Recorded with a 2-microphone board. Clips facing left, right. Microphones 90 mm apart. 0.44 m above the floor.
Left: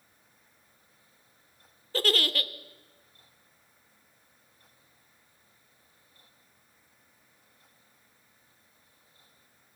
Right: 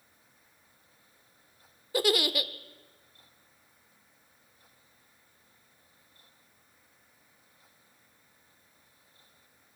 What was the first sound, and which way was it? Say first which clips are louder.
A giggle: right 2 dB; 15° right (ahead or behind).